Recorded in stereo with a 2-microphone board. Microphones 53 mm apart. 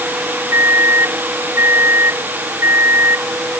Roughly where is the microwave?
Right.